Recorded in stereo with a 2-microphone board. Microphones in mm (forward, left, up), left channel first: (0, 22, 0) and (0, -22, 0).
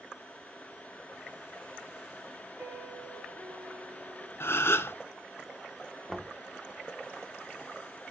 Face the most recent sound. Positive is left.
turn(degrees=5)  # may be behind; listen again after turning